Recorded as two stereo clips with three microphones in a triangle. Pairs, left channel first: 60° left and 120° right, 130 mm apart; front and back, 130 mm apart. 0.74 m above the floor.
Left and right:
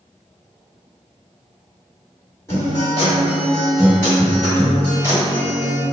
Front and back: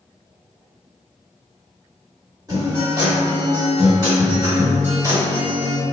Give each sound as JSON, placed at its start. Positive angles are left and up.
{"t": 2.5, "sound": "a guitar", "azimuth_deg": 125, "distance_m": 1.7}